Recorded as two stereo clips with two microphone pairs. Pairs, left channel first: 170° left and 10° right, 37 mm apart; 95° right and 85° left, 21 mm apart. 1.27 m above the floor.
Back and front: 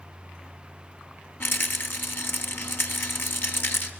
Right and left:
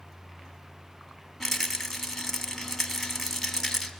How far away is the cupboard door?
No cupboard door in this recording.